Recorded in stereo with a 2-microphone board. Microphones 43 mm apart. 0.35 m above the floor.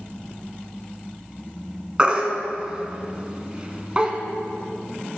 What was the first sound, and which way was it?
A baby crying, 25° right (ahead or behind).